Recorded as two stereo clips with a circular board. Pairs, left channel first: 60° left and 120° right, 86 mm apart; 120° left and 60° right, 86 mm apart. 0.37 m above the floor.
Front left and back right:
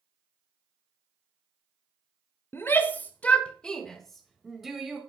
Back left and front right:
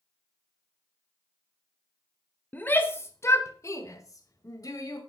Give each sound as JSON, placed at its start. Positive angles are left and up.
{"t": 2.5, "sound": "a shout", "azimuth_deg": 80, "distance_m": 1.2}